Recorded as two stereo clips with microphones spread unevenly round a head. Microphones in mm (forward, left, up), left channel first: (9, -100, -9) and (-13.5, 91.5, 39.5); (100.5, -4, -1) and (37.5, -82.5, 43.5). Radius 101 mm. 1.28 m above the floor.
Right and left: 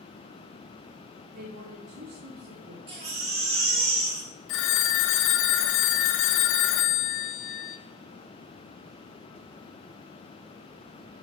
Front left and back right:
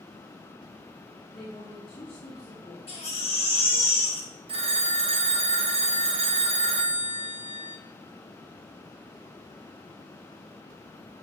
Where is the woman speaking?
100° left, 3 m.